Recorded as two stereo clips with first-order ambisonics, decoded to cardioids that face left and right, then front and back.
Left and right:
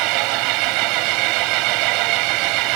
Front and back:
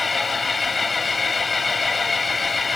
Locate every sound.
0.0 s an engine running: 75° right